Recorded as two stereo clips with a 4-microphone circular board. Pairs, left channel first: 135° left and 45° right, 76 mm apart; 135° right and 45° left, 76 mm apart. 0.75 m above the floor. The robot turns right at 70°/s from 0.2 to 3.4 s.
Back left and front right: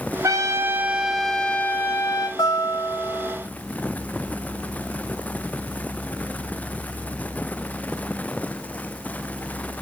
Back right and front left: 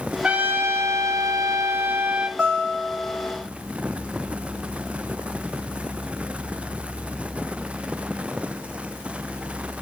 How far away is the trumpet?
About 0.6 m.